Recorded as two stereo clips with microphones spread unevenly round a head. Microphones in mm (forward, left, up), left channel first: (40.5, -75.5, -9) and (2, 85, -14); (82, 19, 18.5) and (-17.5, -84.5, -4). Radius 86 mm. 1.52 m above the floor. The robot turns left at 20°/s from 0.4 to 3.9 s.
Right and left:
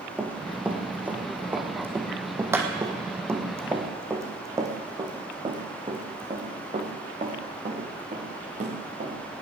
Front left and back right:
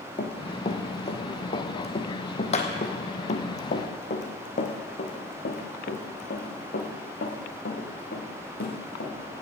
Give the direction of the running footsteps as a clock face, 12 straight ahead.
11 o'clock.